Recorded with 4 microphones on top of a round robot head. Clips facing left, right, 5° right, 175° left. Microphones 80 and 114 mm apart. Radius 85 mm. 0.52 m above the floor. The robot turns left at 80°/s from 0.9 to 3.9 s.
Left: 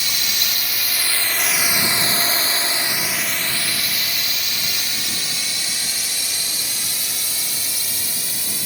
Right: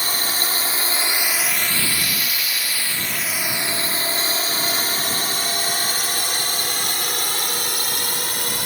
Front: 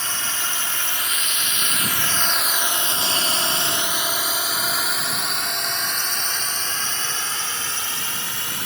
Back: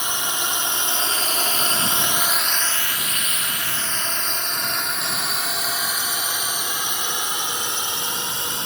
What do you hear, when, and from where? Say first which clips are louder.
0.0 s a drone: right 3 dB, back 3 dB; 115° right